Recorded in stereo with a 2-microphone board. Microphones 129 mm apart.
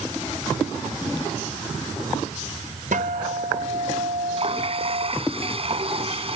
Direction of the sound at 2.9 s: 80° right.